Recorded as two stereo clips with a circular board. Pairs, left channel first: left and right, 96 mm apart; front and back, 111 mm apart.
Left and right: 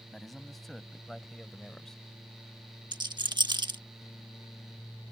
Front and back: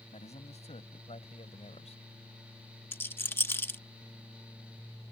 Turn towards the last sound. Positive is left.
turn(degrees=-65)